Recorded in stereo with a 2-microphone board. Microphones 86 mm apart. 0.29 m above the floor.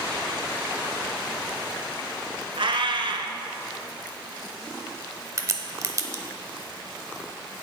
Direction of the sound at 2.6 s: 80° right.